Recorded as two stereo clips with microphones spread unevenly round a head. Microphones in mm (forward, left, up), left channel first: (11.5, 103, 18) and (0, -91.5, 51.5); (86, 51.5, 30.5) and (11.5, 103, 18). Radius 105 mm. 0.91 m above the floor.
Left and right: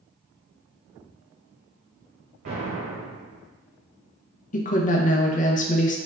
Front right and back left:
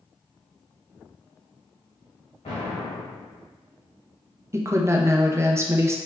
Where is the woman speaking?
100° left, 0.6 m.